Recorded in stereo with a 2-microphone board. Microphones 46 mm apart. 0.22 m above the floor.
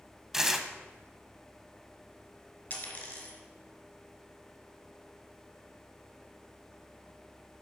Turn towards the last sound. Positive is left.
turn(degrees=40)  # may be behind; listen again after turning